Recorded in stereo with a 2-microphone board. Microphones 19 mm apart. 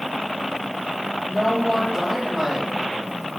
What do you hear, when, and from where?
1.3 s a woman speaking: 10° right (ahead or behind), 6.5 m